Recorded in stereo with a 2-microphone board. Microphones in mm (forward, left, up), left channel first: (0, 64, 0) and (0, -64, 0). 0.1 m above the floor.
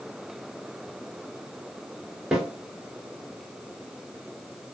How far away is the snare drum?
About 1.1 m.